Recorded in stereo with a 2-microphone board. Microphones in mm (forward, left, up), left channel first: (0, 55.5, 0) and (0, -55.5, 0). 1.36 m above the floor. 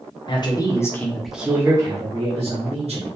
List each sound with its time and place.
0.3 s a man speaking: 45° left (ahead or behind), 0.7 m; by 3.1 s 65° right (ahead or behind), 1.0 m